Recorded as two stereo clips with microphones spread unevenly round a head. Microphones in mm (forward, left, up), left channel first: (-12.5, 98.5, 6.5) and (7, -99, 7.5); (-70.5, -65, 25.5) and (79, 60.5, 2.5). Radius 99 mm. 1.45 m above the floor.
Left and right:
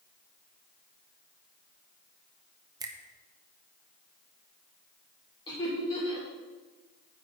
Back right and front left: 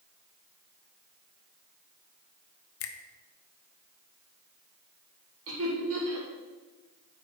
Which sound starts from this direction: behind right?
A finger snap, at 2.8 s.